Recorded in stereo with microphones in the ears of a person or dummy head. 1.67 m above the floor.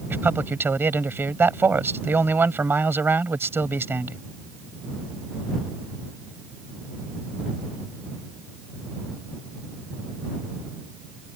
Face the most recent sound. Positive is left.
turn(degrees=-5)  # may be behind; listen again after turning